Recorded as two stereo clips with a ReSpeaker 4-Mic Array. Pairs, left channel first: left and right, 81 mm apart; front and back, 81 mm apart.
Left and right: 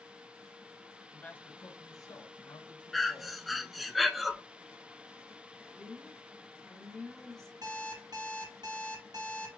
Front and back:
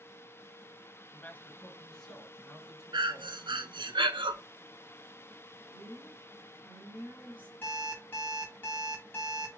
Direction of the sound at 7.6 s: 65° right.